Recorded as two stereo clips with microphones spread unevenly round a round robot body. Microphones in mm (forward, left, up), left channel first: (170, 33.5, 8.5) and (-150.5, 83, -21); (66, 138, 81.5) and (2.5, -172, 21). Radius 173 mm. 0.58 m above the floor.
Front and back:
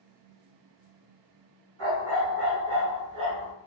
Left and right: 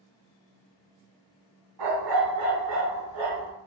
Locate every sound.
1.8 s a dog barking: 130° right, 1.8 m; by 3.5 s 150° right, 2.5 m